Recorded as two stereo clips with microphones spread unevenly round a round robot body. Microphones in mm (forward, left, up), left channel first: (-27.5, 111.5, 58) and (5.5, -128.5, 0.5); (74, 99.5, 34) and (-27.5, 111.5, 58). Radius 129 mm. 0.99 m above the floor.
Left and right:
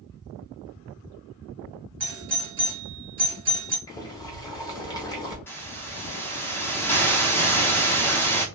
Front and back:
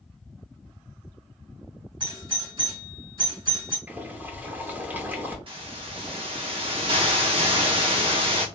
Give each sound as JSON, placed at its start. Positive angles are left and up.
{"t": 2.0, "sound": "a doorbell", "azimuth_deg": -140, "distance_m": 1.7}
{"t": 3.9, "sound": "boiling", "azimuth_deg": 140, "distance_m": 0.7}
{"t": 5.5, "sound": "a hiss", "azimuth_deg": 170, "distance_m": 0.6}